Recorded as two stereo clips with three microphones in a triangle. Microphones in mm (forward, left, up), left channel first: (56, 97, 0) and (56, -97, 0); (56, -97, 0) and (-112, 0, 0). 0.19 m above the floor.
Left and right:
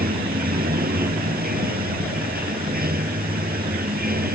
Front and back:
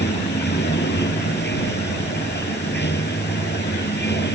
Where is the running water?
55° right.